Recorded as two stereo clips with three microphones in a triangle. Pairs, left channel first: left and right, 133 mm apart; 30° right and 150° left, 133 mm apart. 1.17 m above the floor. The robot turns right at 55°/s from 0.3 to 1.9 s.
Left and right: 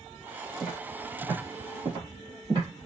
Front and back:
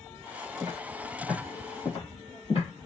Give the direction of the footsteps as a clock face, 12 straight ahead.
6 o'clock.